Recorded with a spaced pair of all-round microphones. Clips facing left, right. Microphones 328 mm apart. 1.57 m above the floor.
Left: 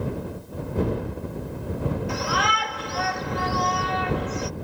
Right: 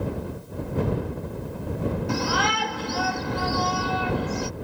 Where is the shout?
45° right (ahead or behind).